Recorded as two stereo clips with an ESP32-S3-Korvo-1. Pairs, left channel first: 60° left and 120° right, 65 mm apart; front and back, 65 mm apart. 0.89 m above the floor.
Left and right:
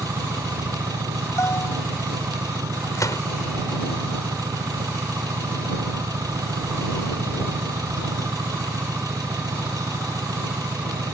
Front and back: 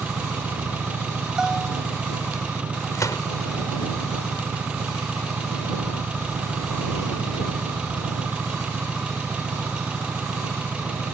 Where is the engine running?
110° right.